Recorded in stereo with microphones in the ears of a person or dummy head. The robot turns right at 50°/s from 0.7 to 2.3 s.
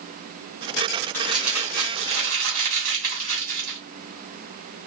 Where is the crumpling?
170° left, 2 m; by 3.8 s 135° right, 2 m.